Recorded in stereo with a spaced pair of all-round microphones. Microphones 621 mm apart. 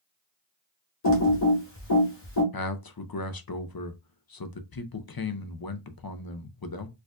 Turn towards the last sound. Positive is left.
turn(degrees=40)  # may be behind; listen again after turning